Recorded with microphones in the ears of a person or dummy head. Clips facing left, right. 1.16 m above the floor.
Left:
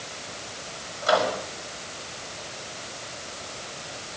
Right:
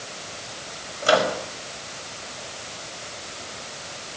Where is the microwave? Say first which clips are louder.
Right 3 dB; 40° right (ahead or behind), 4.5 m.